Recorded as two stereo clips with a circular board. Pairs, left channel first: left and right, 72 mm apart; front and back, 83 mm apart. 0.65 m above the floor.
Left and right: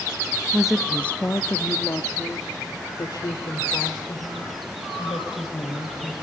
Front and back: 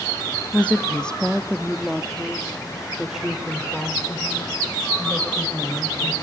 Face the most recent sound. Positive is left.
turn(degrees=100)